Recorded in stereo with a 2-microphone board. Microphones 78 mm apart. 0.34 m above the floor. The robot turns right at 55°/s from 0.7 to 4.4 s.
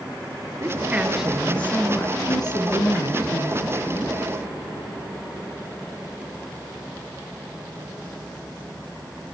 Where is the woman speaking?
35° right, 5 m; by 4.1 s 155° left, 5 m.